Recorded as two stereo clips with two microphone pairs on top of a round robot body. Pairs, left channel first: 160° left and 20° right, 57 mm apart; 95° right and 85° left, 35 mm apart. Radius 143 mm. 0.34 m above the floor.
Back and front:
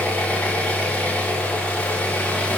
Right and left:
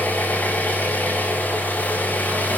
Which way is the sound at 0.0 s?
130° right.